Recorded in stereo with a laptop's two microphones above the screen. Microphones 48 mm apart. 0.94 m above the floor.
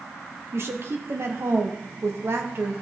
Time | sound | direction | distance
0.5 | a woman speaking | 50° right (ahead or behind) | 0.9 m